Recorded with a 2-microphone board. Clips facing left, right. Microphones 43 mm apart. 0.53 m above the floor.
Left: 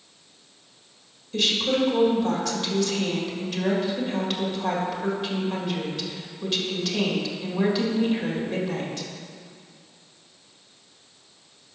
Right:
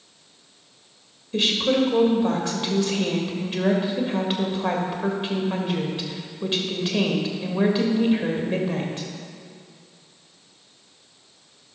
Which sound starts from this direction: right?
A woman speaking, at 1.3 s.